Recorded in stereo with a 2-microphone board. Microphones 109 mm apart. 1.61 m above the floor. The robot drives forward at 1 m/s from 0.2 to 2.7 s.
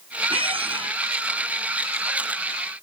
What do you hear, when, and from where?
0.3 s a squeak: 55° right (ahead or behind)